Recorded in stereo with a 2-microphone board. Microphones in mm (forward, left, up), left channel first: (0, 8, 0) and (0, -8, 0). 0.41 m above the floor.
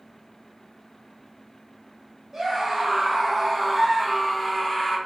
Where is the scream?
45° right (ahead or behind), 1.7 m; by 5.0 s 20° left (ahead or behind), 1.3 m.